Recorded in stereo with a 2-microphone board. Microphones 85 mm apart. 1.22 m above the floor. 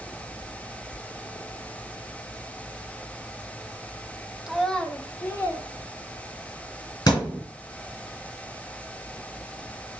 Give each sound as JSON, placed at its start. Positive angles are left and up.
{"t": 4.5, "sound": "a child speaking", "side_deg": -5, "distance_m": 0.6}
{"t": 7.1, "sound": "a thud", "side_deg": 50, "distance_m": 3.0}